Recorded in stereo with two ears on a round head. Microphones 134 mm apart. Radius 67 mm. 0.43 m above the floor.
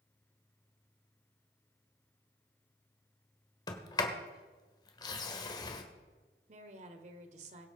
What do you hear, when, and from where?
3.7 s a sliding door: 30° left (ahead or behind), 1.5 m
6.5 s a woman speaking: 50° right (ahead or behind), 1.5 m